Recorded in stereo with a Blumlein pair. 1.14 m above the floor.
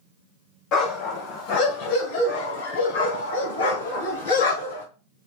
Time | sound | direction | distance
0.7 | a dog barking | 35° left | 2.5 m